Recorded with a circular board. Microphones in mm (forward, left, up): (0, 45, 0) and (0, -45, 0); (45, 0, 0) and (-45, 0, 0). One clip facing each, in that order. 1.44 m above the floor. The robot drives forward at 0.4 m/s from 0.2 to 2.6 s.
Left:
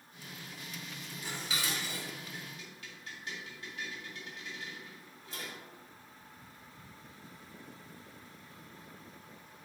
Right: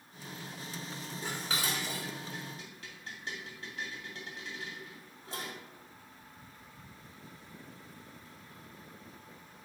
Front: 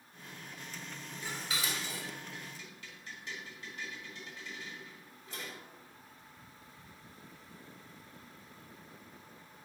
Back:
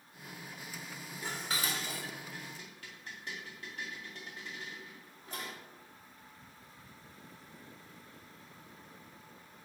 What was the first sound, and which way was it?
Dishes clattering, 135° right.